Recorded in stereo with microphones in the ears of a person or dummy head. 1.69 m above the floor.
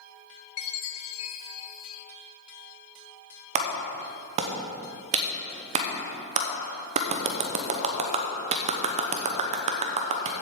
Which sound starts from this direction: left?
A chime, at 0.6 s.